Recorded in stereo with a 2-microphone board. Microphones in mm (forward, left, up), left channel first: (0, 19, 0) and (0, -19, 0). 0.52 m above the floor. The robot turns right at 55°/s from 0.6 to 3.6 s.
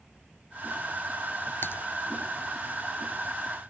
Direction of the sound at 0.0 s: 40° right.